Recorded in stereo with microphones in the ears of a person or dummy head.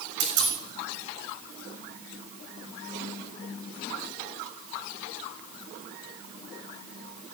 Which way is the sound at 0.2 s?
55° right (ahead or behind).